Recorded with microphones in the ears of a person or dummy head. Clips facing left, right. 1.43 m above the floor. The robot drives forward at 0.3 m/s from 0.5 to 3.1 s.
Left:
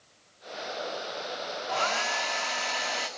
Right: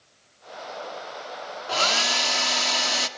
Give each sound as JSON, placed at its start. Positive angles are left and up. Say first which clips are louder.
{"t": 1.7, "sound": "a hair dryer", "louder": "right 4 dB", "side_deg": -60, "distance_m": 2.5}